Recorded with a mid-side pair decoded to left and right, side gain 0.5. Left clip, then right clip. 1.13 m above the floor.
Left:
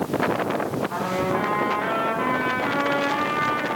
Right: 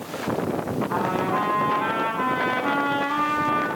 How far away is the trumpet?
About 7.5 m.